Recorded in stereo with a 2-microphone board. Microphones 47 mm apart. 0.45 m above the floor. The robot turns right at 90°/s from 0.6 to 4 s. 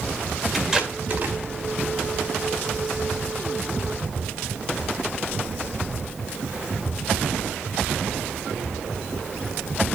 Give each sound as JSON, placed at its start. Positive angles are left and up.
{"t": 0.5, "sound": "tape being pulled", "side_deg": 0, "distance_m": 1.7}